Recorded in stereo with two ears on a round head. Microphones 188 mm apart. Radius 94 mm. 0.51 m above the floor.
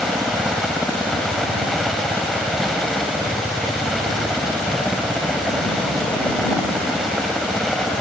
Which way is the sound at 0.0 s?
Centre (ahead or behind).